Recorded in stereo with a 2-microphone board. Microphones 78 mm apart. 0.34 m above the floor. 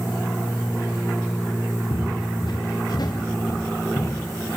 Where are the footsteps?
85° left, 4 m; by 4.5 s 30° left (ahead or behind), 4 m.